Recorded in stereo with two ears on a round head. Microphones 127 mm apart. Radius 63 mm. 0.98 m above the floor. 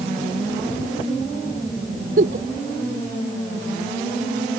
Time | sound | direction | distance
2.2 | a giggle | 60° right (ahead or behind) | ?